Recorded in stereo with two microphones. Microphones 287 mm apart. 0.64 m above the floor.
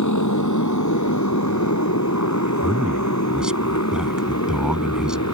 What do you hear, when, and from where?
0.0 s a motorcycle: 90° left; by 5.3 s 65° left (ahead or behind)
2.6 s a man speaking: 5° right (ahead or behind)